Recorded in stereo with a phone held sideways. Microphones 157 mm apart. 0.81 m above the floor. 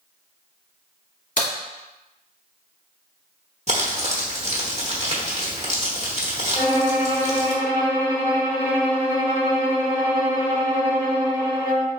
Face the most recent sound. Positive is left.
turn(degrees=70)  # may be behind; listen again after turning